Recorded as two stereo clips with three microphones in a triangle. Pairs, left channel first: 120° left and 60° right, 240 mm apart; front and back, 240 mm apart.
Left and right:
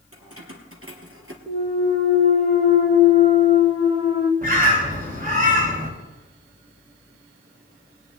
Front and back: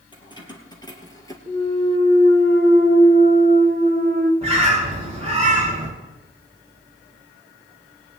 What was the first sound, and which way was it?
Keys jangling, 70° right.